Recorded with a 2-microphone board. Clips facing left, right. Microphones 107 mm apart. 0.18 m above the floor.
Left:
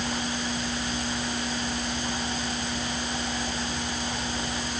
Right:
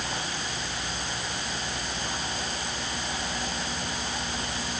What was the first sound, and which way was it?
Only background noise.